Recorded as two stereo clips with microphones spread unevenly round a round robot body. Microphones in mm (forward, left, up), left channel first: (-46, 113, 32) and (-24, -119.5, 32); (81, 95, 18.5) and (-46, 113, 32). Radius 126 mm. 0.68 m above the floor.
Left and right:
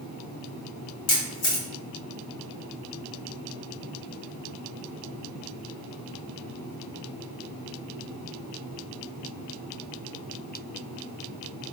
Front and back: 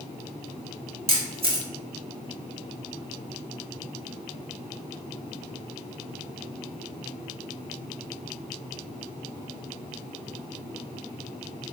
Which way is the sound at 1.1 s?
135° left.